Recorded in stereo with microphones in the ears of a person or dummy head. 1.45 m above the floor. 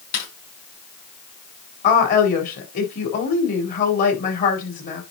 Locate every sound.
0.1 s a snare drum: 55° left (ahead or behind), 5.5 m
1.8 s a woman speaking: 45° left (ahead or behind), 4 m